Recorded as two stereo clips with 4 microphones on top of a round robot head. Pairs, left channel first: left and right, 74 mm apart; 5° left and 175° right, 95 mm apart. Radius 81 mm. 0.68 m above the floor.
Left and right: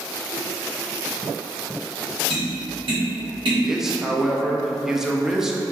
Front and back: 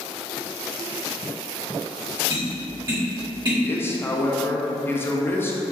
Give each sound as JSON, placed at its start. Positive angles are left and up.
{"t": 2.3, "sound": "tapping", "azimuth_deg": -125, "distance_m": 1.4}
{"t": 3.6, "sound": "a man speaking", "azimuth_deg": -10, "distance_m": 0.6}